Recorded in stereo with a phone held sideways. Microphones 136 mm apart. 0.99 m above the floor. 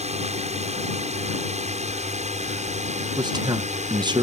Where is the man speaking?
30° right (ahead or behind).